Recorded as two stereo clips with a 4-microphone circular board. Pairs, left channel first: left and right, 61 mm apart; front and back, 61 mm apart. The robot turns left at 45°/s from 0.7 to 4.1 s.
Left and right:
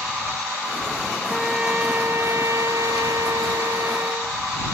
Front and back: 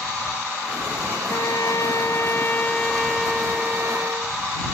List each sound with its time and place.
1.3 s a trumpet: 5° right; by 4.4 s 130° right